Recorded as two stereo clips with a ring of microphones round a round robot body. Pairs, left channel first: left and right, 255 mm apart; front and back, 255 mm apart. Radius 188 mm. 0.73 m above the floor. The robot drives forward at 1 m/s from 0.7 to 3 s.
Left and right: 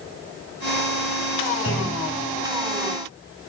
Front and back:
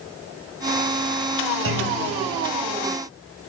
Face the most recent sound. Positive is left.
turn(degrees=155)